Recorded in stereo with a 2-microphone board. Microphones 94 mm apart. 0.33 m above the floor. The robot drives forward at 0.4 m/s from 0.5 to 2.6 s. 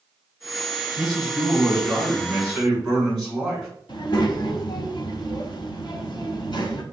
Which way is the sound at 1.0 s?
5° left (ahead or behind).